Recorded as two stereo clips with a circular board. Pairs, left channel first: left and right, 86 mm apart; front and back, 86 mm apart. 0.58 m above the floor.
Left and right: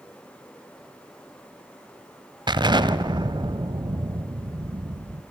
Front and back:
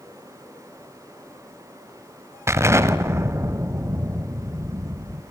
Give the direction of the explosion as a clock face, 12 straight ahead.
4 o'clock.